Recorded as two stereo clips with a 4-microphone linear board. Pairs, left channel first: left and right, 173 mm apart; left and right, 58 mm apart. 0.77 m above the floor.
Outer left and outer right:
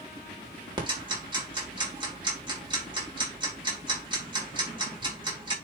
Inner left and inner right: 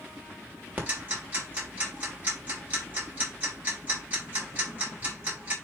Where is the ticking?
25° right (ahead or behind), 3 m.